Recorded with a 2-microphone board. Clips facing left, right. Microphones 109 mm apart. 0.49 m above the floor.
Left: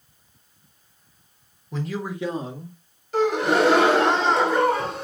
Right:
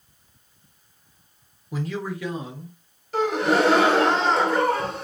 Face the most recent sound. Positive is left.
turn(degrees=0)  # may be behind; listen again after turning